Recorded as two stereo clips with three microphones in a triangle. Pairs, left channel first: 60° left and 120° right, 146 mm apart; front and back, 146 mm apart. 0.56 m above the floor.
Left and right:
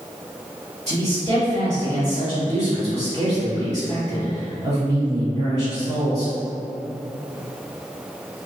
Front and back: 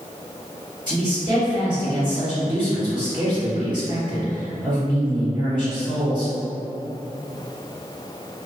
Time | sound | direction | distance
0.9 | a man speaking | 135° right | 1.8 m